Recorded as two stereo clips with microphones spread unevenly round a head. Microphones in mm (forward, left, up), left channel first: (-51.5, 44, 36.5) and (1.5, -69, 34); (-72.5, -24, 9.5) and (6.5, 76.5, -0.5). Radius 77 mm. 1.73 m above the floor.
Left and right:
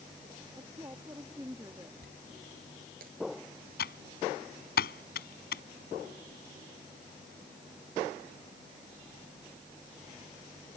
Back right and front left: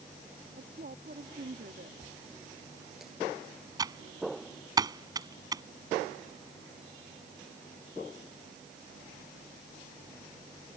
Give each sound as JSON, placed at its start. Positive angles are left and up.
{"t": 0.6, "sound": "a woman speaking", "azimuth_deg": 10}
{"t": 2.0, "sound": "a dropped coin", "azimuth_deg": -35}
{"t": 3.8, "sound": "typing on a keyboard", "azimuth_deg": 115}